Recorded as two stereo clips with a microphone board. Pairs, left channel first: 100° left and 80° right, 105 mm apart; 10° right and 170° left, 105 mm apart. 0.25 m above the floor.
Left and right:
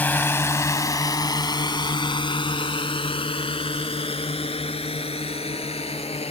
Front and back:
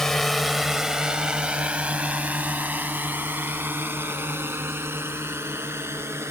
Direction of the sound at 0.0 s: 65° left.